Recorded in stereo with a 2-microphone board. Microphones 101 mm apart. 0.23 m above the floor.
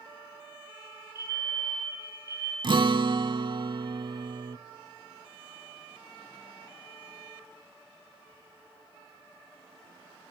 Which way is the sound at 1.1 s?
30° right (ahead or behind).